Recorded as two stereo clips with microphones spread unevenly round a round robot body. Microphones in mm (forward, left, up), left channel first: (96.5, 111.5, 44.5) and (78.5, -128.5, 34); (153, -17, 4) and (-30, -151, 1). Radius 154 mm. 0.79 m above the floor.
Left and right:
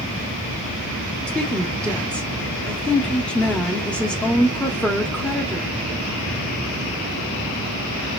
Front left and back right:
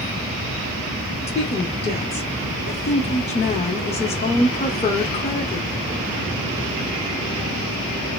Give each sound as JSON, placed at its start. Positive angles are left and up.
{"t": 1.3, "sound": "a woman speaking", "azimuth_deg": 0, "distance_m": 0.9}